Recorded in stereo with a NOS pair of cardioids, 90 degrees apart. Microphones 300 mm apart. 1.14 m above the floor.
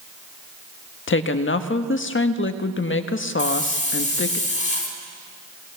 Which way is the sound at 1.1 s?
40° left.